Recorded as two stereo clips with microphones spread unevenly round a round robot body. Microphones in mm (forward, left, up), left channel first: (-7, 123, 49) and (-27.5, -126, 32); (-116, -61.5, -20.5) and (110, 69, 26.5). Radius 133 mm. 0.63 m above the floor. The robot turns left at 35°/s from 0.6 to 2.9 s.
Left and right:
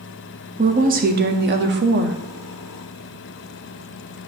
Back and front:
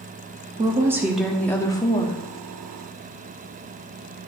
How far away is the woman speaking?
About 0.7 m.